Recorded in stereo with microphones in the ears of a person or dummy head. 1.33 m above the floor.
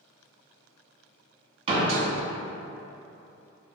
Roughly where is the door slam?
Right.